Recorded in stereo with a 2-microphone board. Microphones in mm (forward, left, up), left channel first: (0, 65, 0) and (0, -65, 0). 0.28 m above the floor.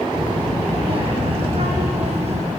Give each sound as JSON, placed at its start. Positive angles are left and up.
{"t": 0.1, "sound": "a child speaking", "side_deg": -45, "distance_m": 8.0}